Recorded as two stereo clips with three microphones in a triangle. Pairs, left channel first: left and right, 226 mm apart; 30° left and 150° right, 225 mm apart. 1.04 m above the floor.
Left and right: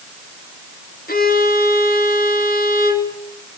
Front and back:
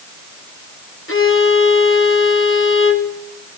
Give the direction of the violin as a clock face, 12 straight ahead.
10 o'clock.